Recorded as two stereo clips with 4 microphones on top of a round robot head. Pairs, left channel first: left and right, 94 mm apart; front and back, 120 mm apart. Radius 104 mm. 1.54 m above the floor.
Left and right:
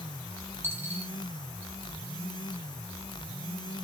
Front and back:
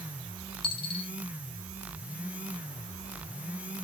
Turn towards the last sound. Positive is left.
turn(degrees=-25)